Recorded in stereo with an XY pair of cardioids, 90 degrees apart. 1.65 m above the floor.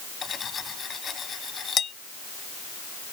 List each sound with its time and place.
0.2 s cutlery clinking: 50° left